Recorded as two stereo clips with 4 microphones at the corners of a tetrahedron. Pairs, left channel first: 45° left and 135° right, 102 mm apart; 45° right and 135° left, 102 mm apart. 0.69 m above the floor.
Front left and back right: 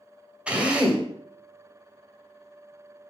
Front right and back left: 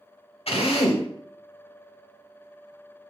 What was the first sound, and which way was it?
A drill, 55° right.